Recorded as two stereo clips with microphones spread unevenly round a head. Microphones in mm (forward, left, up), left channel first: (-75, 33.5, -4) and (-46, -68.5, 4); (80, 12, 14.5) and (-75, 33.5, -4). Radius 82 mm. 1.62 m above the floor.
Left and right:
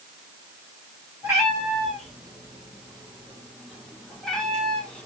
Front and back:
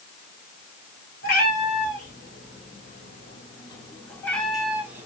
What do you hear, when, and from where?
1.2 s a cat meowing: 5° left, 2.5 m; by 5.1 s 150° left, 1.2 m